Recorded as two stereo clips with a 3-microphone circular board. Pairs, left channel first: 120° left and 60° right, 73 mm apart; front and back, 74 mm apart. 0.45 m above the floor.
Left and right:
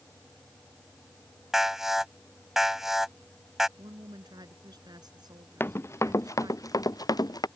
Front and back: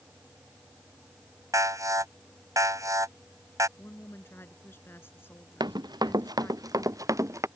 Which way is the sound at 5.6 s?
175° left.